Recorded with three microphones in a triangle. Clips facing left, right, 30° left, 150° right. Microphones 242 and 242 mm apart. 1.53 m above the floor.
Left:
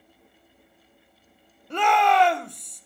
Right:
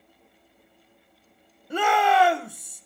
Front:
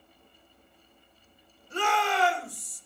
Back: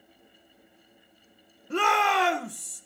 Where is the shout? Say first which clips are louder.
Even, back 2 dB; 175° right, 1.4 m.